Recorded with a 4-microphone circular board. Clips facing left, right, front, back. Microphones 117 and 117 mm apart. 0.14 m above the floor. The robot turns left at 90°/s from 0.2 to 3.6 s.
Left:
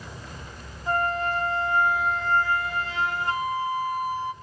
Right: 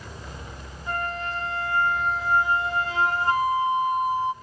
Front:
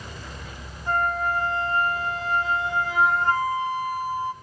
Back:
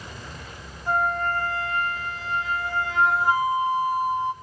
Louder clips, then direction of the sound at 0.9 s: Left 5 dB, even; 110° left.